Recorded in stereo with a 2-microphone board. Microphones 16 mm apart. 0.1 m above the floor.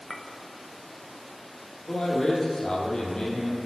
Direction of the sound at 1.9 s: 45° left (ahead or behind).